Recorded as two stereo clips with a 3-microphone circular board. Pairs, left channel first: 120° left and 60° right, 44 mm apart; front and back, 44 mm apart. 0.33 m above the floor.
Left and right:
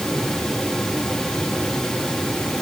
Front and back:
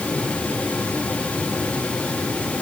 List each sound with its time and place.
Only background noise.